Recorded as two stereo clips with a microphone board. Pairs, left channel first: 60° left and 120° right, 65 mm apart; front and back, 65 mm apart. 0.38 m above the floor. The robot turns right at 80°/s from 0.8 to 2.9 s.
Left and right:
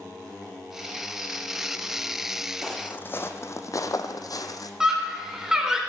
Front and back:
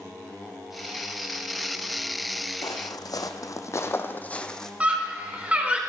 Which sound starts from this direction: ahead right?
Footsteps, at 2.6 s.